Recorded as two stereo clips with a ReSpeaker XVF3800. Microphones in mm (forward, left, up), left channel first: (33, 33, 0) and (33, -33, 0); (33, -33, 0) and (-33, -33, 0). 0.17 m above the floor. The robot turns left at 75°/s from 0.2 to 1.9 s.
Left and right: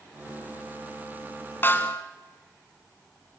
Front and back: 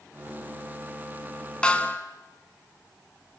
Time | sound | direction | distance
1.6 | a snare drum | 65° left | 2.0 m